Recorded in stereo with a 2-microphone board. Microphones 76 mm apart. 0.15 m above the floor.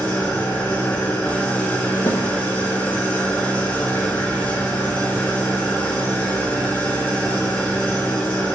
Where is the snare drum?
35° left (ahead or behind), 1.0 m.